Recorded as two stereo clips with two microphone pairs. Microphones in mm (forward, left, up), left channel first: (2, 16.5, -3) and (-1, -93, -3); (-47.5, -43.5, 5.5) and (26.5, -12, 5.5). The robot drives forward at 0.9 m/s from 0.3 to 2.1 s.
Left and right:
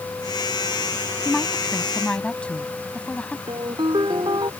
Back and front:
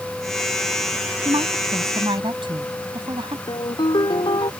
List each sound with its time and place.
1.2 s a woman speaking: 5° left
3.5 s a ringtone: 135° right